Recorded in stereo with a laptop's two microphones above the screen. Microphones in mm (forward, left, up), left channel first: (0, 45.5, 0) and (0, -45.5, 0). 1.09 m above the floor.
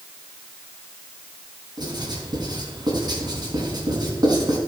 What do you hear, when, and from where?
1.8 s writing: 50° right (ahead or behind), 3 m